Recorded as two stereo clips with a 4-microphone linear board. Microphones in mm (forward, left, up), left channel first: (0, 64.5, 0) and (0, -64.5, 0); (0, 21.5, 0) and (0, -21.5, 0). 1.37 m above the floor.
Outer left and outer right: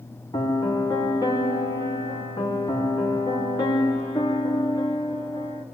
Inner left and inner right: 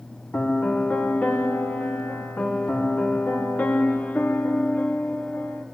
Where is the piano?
30° left (ahead or behind), 2.5 m.